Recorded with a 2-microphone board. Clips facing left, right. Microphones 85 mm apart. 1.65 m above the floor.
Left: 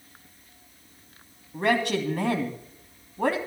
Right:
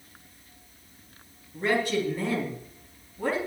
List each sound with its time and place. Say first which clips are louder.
1.5 s a man speaking: left 2 dB; 75° left (ahead or behind), 3 m